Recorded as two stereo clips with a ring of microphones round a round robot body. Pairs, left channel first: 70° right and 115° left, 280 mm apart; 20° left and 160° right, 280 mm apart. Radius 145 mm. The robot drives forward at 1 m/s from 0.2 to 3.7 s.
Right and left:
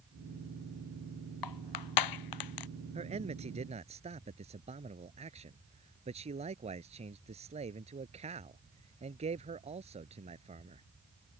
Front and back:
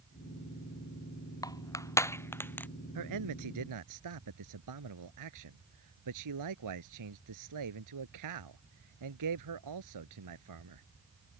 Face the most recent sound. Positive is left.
turn(degrees=180)